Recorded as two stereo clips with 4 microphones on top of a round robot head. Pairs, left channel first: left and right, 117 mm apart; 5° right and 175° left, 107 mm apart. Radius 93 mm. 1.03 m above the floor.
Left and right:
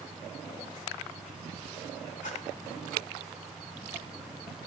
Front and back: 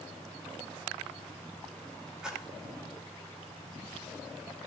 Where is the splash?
95° left, 6.5 m.